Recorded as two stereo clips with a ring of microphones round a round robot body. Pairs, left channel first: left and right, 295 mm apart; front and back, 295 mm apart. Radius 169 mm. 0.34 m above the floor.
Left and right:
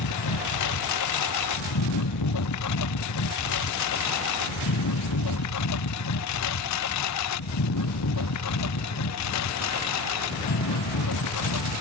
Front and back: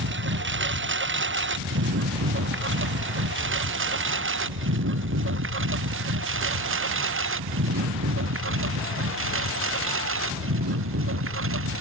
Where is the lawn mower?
130° left; by 11.8 s 135° left.